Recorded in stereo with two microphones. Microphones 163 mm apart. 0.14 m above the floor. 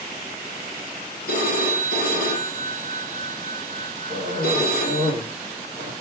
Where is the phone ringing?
65° left (ahead or behind), 2.5 m.